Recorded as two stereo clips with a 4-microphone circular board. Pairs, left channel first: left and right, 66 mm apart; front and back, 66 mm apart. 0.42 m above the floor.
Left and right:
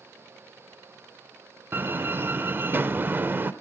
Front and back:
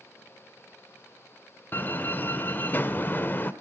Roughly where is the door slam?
Ahead right.